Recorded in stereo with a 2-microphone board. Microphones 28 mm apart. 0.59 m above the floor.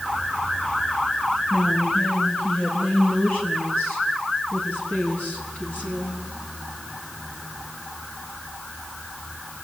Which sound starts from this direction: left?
A woman speaking, at 1.5 s.